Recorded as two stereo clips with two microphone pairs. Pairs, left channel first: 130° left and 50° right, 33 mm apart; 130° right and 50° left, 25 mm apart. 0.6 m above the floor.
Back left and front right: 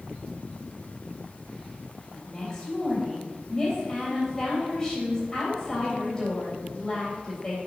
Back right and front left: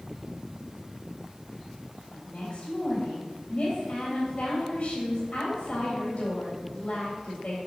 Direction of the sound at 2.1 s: 160° right.